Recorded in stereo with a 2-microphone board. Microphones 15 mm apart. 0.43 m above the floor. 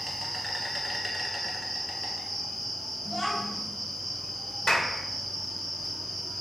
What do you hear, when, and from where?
0.0 s an insect: 5° left (ahead or behind), 1.1 m
3.0 s a child speaking: 40° left (ahead or behind), 1.7 m
4.7 s a clap: 45° left (ahead or behind), 1.0 m